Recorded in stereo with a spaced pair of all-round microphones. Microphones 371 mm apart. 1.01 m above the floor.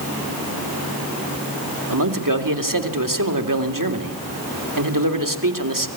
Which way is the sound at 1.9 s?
60° right (ahead or behind).